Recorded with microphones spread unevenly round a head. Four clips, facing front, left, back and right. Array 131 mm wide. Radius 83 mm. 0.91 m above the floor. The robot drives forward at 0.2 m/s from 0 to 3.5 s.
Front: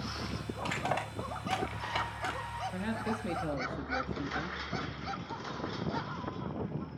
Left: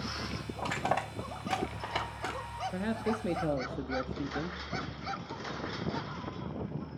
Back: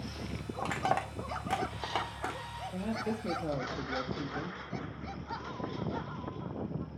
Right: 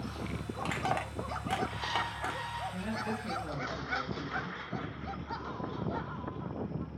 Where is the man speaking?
115° left, 1.7 m; by 4.6 s 120° left, 1.7 m.